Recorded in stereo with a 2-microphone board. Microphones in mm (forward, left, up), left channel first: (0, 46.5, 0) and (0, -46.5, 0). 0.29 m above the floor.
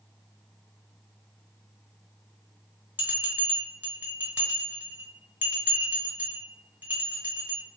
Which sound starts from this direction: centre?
A bell, at 3.0 s.